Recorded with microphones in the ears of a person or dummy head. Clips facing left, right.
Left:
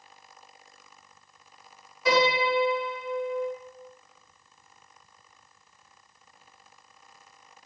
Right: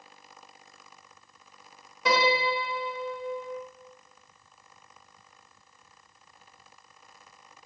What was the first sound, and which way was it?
A piano, 65° right (ahead or behind).